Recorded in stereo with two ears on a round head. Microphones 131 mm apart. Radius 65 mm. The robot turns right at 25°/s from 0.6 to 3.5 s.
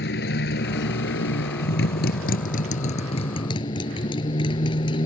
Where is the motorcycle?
75° left; by 5.0 s 145° left.